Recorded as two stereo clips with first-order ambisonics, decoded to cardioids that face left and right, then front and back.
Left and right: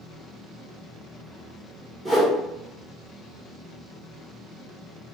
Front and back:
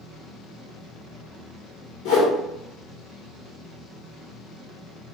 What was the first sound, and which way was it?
A whoosh, 10° right.